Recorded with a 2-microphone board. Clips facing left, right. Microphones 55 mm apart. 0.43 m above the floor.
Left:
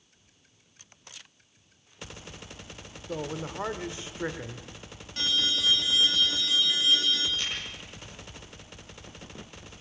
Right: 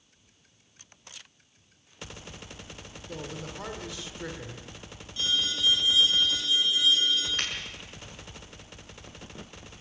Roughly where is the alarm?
Left.